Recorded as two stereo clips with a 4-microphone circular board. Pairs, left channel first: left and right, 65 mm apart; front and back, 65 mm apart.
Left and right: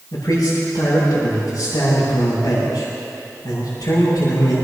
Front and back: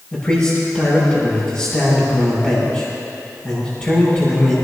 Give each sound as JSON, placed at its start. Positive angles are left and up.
{"t": 0.1, "sound": "a man speaking", "azimuth_deg": 65, "distance_m": 7.0}